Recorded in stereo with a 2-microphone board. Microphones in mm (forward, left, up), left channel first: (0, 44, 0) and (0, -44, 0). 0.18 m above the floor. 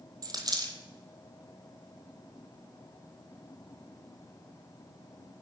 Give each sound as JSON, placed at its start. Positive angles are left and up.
{"t": 0.2, "sound": "a dropped coin", "side_deg": -50, "distance_m": 1.2}